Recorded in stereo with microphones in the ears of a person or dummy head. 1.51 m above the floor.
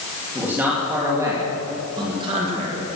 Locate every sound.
0.3 s a man speaking: 10° right (ahead or behind), 3 m; by 2.9 s 45° right (ahead or behind), 2.5 m